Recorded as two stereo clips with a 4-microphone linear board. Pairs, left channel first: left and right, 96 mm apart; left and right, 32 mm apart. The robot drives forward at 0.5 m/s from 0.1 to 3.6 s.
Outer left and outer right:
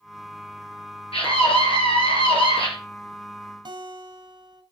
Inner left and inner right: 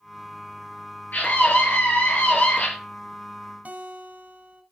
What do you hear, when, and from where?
1.1 s a scream: 75° left (ahead or behind), 4.5 m; by 2.7 s 70° left (ahead or behind), 4.5 m
3.6 s a guitar: 55° right (ahead or behind), 1.3 m